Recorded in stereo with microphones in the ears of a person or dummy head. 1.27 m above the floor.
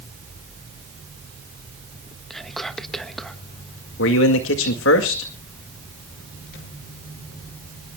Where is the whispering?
Centre (ahead or behind), 1.5 m.